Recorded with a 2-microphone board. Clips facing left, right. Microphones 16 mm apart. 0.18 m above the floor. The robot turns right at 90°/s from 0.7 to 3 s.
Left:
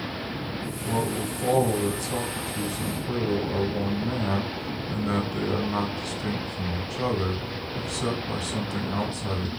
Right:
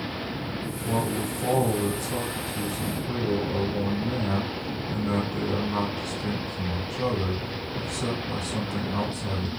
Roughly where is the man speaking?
Right.